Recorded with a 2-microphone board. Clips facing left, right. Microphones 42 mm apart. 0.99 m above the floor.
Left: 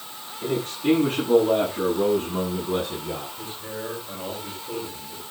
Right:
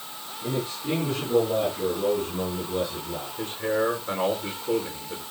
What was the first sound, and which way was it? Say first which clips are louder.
A man speaking: left 5 dB; 65° left (ahead or behind).